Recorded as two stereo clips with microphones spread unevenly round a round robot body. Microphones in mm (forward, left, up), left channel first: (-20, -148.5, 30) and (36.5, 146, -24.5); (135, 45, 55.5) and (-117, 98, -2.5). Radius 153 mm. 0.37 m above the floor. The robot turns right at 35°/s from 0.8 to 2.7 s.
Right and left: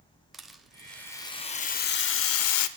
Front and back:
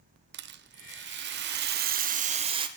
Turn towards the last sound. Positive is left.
turn(degrees=-135)